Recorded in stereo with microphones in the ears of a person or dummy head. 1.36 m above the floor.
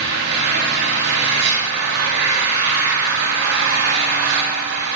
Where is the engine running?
60° right (ahead or behind), 3 m.